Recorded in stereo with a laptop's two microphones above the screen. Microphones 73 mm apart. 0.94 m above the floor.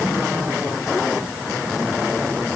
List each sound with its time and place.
Only background noise.